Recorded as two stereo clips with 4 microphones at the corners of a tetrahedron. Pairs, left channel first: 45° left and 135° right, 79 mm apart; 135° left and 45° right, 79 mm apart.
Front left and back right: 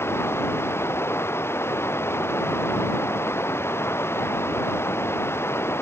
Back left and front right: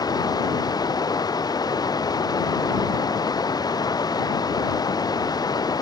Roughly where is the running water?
Left.